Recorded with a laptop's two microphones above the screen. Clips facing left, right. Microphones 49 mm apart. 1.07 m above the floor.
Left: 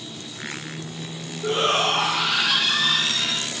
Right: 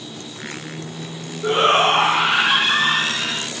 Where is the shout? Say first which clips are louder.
Right 6 dB; 35° right (ahead or behind).